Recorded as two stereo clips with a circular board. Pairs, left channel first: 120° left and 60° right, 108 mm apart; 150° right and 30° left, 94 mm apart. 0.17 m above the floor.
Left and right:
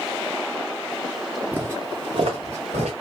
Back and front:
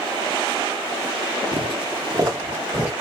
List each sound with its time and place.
1.5 s footsteps: 15° left, 0.7 m; by 2.9 s 55° right, 1.3 m